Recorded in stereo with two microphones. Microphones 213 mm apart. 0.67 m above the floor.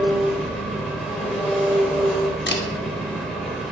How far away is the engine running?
About 1.1 m.